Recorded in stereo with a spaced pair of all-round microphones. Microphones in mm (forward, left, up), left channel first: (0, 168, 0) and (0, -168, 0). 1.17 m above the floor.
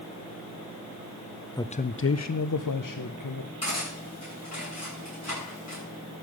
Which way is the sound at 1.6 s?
10° left (ahead or behind).